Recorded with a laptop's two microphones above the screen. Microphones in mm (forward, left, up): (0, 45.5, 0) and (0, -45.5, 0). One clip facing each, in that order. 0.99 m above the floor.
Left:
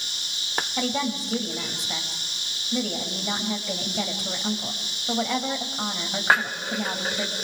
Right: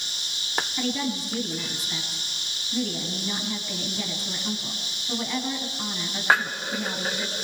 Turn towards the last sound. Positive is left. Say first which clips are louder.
# left 3 dB
turn(degrees=75)  # may be behind; listen again after turning